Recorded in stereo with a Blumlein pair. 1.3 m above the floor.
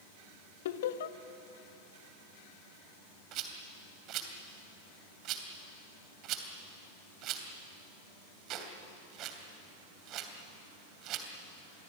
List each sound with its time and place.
0.7 s laughter: 55° left, 1.6 m
3.3 s a rattle: 35° right, 3 m